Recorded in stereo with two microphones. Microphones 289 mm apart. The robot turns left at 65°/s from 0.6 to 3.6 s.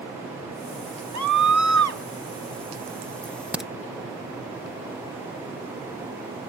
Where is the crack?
25° right (ahead or behind); by 3.7 s centre (ahead or behind).